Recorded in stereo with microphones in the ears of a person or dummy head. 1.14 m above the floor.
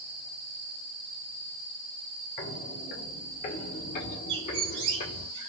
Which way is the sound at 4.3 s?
65° right (ahead or behind).